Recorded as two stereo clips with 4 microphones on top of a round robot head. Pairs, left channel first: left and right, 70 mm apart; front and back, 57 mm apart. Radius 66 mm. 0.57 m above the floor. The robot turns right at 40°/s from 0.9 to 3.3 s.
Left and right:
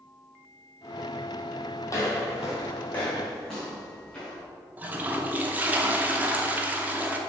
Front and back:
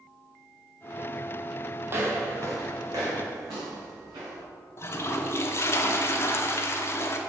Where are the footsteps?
135° left, 1.3 m; by 4.4 s 170° left, 4.5 m.